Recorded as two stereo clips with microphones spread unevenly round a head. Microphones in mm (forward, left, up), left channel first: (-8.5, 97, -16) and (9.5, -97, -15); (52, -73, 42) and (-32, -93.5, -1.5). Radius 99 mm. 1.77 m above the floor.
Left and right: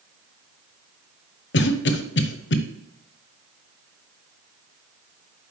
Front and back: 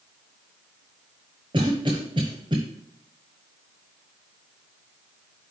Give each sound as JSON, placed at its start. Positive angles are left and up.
{"t": 1.5, "sound": "a cough", "azimuth_deg": 115, "distance_m": 0.9}